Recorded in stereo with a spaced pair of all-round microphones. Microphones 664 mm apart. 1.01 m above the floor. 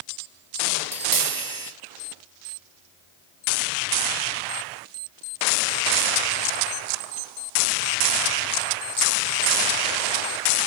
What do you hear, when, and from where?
0.8 s tapping: 30° right (ahead or behind), 1.0 m